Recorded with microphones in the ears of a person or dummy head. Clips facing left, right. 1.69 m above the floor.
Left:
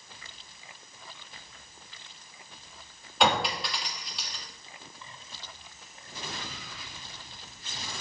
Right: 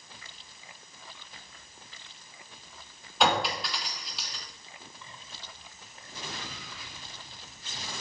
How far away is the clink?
About 1.6 m.